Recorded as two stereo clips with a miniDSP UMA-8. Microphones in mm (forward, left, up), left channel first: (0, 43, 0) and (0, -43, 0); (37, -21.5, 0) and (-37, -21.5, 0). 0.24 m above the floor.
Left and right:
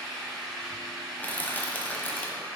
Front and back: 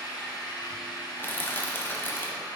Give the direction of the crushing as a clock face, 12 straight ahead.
11 o'clock.